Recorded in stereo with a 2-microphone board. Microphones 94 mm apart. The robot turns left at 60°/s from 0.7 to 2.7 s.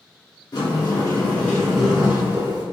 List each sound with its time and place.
0.5 s a sliding door: 60° left, 1.3 m; by 2.6 s 55° right, 1.3 m